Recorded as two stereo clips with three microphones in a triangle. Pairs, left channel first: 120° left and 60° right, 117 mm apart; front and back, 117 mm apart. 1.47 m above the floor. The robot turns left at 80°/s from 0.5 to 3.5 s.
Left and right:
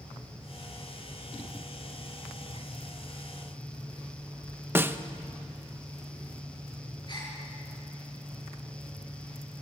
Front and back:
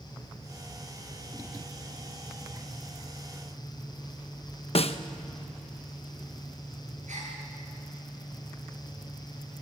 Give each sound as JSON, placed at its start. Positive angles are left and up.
{"t": 4.8, "sound": "a snare drum", "azimuth_deg": 10, "distance_m": 0.9}
{"t": 7.1, "sound": "a gasp", "azimuth_deg": 175, "distance_m": 9.0}